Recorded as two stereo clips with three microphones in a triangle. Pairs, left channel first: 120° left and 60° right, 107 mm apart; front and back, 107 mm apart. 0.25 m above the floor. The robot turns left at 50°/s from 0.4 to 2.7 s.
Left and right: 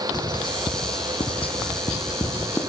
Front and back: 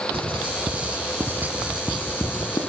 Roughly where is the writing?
Behind.